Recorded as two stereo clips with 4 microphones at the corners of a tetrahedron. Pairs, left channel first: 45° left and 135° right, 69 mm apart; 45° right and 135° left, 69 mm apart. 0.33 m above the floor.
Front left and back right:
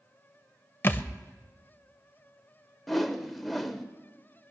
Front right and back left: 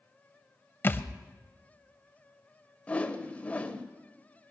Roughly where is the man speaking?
No man speaking in this recording.